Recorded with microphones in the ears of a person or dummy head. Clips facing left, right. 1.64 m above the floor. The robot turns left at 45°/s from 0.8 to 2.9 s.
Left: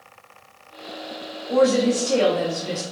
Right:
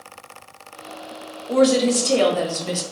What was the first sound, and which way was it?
A woman speaking, 40° right.